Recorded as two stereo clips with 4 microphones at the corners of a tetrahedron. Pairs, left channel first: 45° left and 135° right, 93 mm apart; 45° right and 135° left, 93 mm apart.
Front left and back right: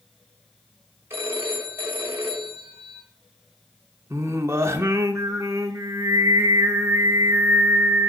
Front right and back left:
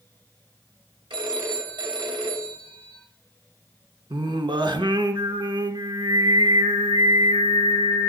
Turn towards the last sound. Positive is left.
turn(degrees=165)